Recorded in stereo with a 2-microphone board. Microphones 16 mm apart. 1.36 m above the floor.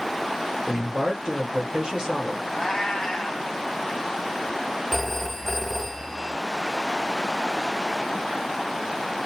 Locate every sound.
0.7 s a man speaking: 65° right (ahead or behind), 1.4 m
2.5 s a cat meowing: 45° left (ahead or behind), 1.6 m
4.9 s a phone ringing: 10° left (ahead or behind), 1.0 m